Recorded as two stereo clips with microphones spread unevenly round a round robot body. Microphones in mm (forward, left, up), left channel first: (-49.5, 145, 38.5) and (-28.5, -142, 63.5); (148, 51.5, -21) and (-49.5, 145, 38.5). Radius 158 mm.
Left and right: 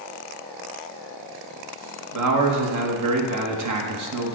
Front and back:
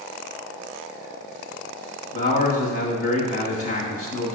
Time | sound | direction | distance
2.1 | a man speaking | 70° right | 1.2 m